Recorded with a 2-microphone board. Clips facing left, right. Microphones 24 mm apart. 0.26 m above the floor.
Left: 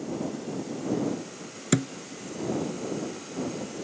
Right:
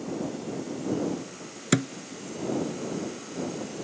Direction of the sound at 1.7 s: 15° right (ahead or behind).